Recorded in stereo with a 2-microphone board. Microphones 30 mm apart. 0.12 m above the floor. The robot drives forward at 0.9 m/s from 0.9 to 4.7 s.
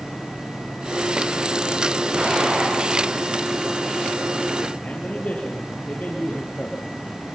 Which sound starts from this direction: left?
A man speaking, at 4.8 s.